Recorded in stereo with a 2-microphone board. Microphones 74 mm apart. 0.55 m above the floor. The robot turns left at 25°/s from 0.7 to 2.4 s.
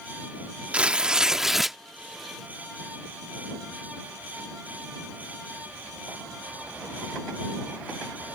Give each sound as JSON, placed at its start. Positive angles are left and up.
{"t": 0.7, "sound": "tearing paper", "side_deg": -15}